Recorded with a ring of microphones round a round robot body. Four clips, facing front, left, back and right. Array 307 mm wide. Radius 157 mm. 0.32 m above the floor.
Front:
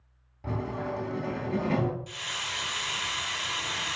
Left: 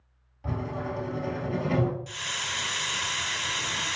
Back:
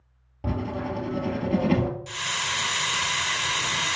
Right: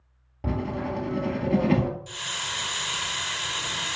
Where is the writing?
130° right, 1.8 m.